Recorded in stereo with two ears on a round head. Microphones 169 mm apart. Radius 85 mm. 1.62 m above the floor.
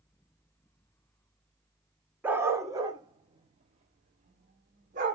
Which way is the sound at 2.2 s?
10° right (ahead or behind).